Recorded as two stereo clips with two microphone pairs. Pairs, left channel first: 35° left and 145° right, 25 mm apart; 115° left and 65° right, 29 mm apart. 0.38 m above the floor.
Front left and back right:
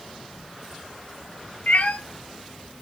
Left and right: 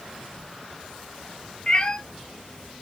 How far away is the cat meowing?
About 1.6 m.